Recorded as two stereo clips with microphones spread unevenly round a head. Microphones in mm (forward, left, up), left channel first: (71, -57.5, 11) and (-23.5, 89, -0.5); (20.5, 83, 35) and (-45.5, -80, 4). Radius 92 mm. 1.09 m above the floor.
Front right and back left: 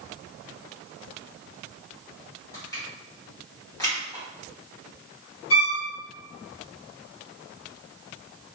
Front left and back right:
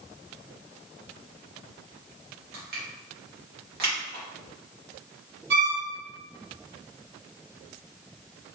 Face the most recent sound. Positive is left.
turn(degrees=-85)